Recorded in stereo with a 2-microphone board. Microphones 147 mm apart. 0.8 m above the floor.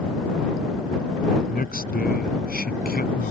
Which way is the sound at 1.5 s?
85° left.